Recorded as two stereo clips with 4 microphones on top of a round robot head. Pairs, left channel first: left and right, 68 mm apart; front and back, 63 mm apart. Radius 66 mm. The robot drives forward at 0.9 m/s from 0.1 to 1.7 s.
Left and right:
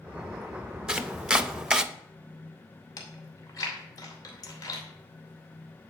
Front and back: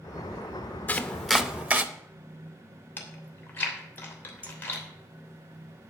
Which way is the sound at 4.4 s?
115° left.